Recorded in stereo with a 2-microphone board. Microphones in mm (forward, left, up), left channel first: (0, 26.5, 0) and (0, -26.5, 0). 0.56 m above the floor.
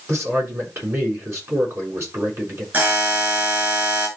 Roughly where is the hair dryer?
No hair dryer in this recording.